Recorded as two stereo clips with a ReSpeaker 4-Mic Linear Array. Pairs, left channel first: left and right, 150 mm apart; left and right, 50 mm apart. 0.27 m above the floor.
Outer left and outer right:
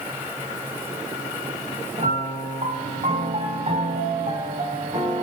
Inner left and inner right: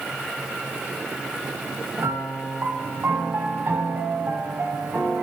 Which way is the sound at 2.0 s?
50° right (ahead or behind).